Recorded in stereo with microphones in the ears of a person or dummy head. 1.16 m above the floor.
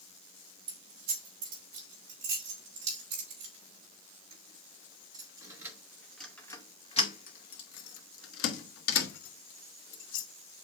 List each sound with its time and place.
0.7 s keys jangling: 45° right (ahead or behind), 4 m; by 10.3 s 75° left (ahead or behind), 2 m